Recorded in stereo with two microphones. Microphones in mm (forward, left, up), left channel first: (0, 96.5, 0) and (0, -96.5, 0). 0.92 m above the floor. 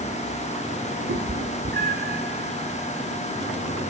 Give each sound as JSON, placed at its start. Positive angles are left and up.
{"t": 1.1, "sound": "a cat meowing", "side_deg": -80, "distance_m": 1.5}